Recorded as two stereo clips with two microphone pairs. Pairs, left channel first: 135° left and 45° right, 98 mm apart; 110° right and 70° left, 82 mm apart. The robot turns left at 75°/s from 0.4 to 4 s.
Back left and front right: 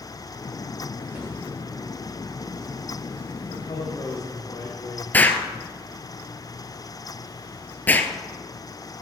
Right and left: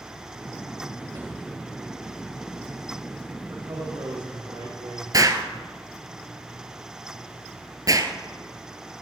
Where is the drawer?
30° left, 5.5 m; by 1.3 s 20° left, 5.5 m.